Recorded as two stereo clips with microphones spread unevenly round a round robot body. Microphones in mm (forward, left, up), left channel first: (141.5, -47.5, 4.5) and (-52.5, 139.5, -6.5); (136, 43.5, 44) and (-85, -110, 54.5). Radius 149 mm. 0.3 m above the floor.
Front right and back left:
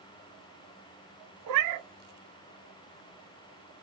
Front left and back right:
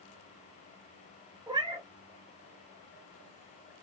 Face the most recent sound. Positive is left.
turn(degrees=140)